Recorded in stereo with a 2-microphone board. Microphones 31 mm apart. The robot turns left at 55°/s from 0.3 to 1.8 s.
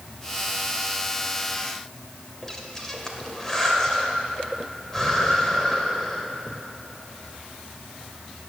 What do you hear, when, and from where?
2.4 s breathing: 15° left (ahead or behind), 1.9 m